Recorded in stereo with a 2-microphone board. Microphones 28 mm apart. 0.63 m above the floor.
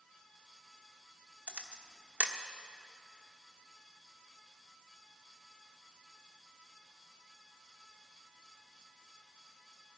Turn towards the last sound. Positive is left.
turn(degrees=-50)  # may be behind; listen again after turning